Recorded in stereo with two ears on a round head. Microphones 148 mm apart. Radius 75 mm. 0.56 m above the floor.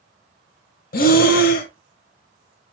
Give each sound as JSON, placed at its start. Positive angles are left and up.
{"t": 0.9, "sound": "breathing", "side_deg": 60, "distance_m": 0.7}